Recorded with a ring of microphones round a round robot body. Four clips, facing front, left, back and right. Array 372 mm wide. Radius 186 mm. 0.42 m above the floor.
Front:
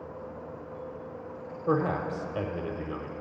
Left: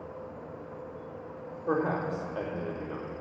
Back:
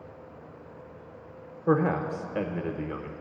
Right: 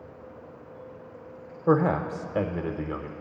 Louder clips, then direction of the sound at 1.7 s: Right 6 dB, back 3 dB; 105° right.